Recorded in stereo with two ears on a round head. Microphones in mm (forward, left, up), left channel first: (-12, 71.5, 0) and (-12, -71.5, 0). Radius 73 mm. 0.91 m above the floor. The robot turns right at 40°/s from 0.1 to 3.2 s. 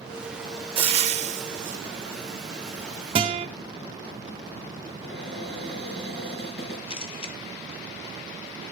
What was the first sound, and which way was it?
Frying, 135° right.